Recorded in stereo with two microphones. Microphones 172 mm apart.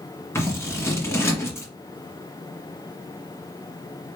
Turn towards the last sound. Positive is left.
turn(degrees=15)  # may be behind; listen again after turning